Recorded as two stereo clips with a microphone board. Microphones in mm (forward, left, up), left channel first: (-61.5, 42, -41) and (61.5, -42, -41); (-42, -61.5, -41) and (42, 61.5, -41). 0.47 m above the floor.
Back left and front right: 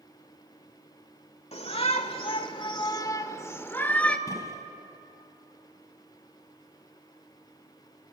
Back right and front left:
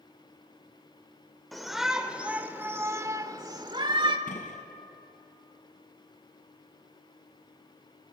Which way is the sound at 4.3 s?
150° right.